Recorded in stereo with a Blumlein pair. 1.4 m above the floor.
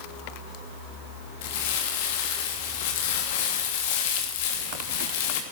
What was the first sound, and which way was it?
Crumpling, 50° left.